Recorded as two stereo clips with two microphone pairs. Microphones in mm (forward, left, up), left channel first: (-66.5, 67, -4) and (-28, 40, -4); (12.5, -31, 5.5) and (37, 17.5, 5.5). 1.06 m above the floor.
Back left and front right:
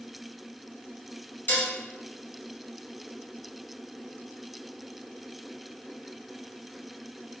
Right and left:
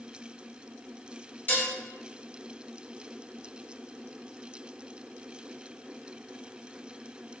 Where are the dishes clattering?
170° right, 0.8 m.